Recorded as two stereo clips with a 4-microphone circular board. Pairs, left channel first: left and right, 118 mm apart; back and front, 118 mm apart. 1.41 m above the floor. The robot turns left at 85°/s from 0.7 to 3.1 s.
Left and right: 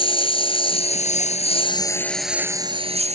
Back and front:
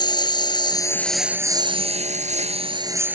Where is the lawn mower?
130° left; by 3.2 s 75° right.